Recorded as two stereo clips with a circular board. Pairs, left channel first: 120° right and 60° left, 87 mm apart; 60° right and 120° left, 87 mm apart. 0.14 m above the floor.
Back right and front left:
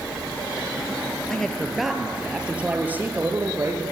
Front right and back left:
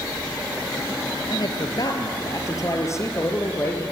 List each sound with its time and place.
1.3 s a man speaking: 40° right, 2.5 m; by 3.8 s straight ahead, 4 m